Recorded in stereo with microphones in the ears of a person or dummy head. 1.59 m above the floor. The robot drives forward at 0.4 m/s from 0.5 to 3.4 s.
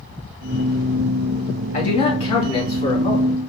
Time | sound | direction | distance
1.7 | a man speaking | 30° left (ahead or behind) | 2 m